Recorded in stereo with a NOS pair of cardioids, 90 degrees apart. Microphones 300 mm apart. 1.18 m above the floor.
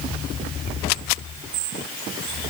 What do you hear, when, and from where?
Only background noise.